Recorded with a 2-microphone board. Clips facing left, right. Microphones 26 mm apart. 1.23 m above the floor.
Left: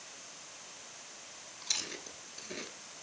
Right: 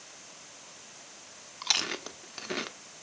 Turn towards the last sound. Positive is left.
turn(degrees=-60)  # may be behind; listen again after turning